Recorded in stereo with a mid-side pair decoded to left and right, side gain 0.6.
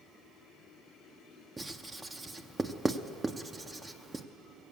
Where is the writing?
20° right, 0.6 m.